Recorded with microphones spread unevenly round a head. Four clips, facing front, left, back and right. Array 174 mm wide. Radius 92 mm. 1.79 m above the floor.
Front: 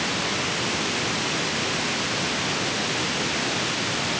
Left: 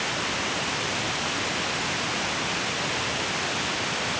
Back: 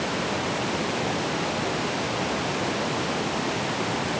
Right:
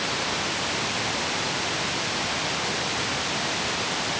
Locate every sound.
Only background noise.